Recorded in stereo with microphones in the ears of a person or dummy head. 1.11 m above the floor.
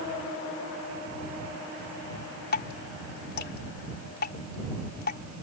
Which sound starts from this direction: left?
Dripping, at 2.5 s.